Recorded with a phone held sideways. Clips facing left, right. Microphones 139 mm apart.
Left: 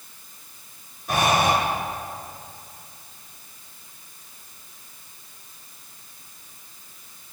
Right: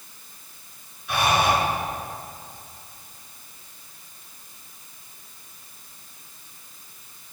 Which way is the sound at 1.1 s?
45° left (ahead or behind).